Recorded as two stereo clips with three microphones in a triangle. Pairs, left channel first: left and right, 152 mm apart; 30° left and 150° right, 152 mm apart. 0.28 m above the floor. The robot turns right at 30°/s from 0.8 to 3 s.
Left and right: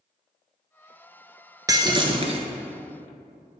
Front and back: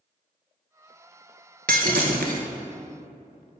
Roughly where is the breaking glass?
Behind right.